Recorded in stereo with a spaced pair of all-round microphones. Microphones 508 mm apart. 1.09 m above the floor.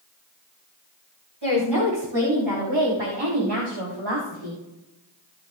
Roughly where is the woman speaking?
Right.